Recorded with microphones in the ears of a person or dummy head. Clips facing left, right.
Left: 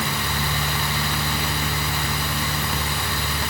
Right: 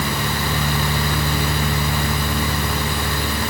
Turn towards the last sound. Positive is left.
No sound to turn to.